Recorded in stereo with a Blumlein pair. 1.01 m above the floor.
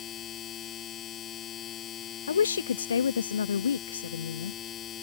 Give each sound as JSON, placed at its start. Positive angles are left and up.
{"t": 0.0, "sound": "a machine running", "azimuth_deg": 25}
{"t": 2.3, "sound": "a woman speaking", "azimuth_deg": 70}